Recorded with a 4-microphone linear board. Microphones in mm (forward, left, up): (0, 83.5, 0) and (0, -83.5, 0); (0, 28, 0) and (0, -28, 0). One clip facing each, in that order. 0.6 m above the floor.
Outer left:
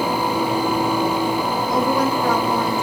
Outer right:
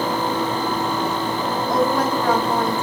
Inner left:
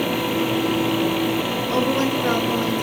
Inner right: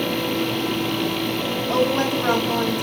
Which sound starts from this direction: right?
A woman speaking, at 1.7 s.